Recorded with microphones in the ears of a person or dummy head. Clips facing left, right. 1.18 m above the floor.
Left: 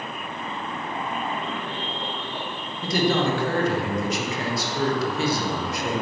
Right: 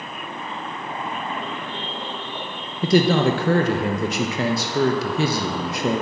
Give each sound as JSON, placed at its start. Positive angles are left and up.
{"t": 2.8, "sound": "a man speaking", "side_deg": -60, "distance_m": 1.0}